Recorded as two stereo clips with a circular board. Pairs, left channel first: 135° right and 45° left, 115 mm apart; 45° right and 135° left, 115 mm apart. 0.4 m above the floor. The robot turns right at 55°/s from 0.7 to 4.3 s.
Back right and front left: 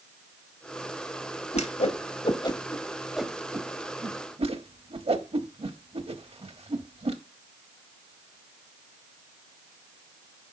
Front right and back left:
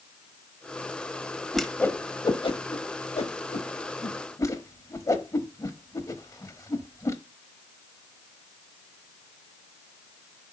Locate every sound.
1.5 s a whoosh: 135° right, 0.8 m; by 7.2 s 15° left, 0.8 m